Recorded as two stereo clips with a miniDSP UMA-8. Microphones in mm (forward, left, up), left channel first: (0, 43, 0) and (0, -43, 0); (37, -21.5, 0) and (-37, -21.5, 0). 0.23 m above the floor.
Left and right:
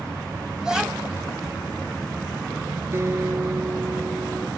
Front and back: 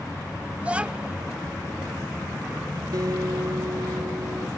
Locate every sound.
0.6 s a child speaking: 155° right
2.9 s a guitar: 145° right